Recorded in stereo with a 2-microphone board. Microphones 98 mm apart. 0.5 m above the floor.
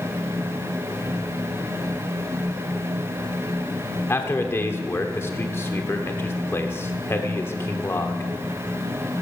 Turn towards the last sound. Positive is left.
turn(degrees=25)  # may be behind; listen again after turning